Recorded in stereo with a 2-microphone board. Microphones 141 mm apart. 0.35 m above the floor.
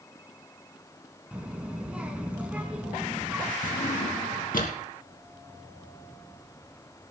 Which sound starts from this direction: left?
A drawer, at 3.6 s.